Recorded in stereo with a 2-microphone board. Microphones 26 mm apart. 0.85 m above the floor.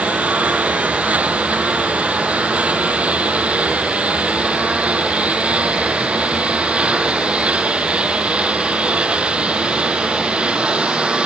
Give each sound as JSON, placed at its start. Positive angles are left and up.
{"t": 0.0, "sound": "a lawn mower", "side_deg": -65}